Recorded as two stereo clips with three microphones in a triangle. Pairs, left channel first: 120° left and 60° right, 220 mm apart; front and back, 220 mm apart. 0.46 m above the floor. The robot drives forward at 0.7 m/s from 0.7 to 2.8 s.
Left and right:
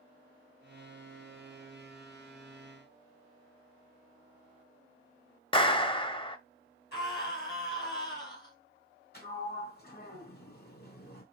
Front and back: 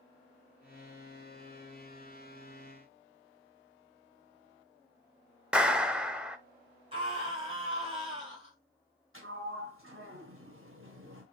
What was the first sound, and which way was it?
A clap, 100° left.